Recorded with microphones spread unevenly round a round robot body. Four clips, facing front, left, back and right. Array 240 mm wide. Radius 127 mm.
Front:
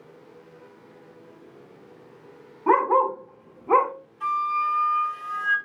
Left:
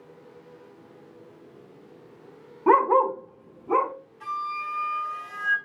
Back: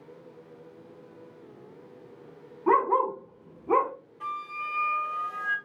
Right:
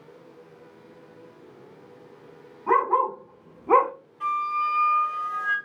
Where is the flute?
170° right, 1.0 m.